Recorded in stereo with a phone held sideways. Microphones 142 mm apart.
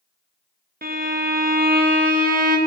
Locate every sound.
0.8 s a violin: 85° right, 0.8 m